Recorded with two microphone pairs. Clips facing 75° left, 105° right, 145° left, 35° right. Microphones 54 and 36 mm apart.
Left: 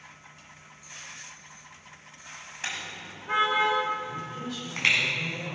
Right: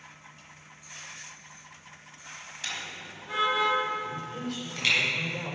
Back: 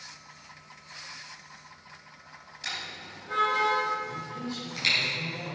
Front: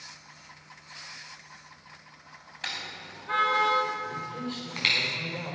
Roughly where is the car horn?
Ahead.